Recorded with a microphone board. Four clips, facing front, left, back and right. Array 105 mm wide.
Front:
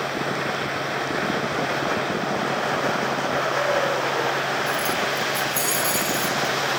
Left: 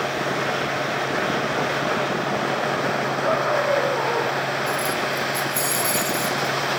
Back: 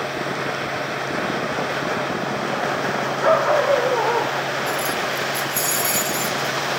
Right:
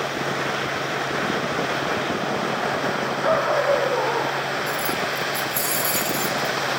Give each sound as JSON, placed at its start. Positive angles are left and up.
{"t": 3.2, "sound": "a dog barking", "azimuth_deg": -165, "distance_m": 9.5}
{"t": 4.7, "sound": "keys jangling", "azimuth_deg": -175, "distance_m": 4.5}